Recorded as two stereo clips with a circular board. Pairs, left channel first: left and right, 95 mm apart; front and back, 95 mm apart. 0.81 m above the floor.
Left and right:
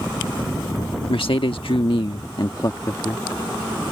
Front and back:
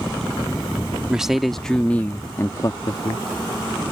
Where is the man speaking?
100° left; by 3.2 s 30° left.